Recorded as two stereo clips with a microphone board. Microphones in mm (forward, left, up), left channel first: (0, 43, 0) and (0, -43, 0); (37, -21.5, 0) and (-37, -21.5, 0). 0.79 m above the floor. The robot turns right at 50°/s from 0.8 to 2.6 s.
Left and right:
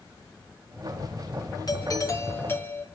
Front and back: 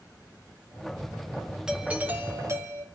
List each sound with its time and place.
1.7 s a doorbell: 100° left, 1.5 m; by 2.9 s 150° left, 1.5 m